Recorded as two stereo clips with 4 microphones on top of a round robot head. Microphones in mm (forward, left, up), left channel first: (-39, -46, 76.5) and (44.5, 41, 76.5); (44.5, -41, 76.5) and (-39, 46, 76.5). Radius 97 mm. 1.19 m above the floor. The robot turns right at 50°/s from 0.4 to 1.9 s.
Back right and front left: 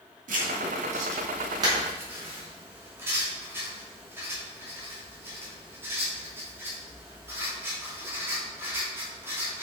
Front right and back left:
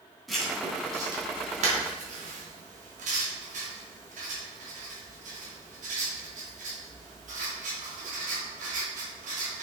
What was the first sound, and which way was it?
Writing, 45° left.